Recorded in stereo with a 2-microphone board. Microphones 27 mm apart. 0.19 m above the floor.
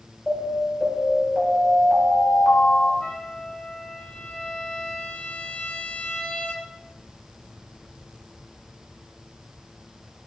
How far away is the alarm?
About 6 m.